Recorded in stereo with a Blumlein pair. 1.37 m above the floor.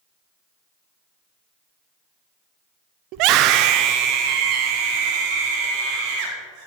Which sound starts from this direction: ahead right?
A scream, at 3.1 s.